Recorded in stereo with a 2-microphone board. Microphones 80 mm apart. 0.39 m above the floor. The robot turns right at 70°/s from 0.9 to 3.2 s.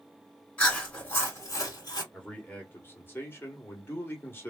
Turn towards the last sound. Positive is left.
turn(degrees=30)  # may be behind; listen again after turning